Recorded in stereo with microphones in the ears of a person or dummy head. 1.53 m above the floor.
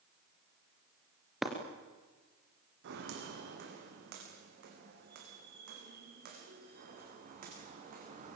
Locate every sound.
1.4 s breaking glass: 5° right (ahead or behind), 3 m
2.8 s footsteps: 65° right (ahead or behind), 4.5 m; by 8.4 s 45° right (ahead or behind), 6.5 m